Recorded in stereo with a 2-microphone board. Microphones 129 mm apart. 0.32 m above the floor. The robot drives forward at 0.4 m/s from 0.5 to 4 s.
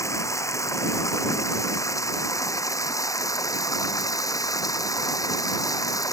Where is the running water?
25° left (ahead or behind).